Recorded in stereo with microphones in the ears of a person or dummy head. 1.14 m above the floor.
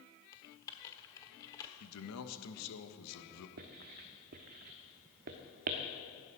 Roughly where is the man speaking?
Left.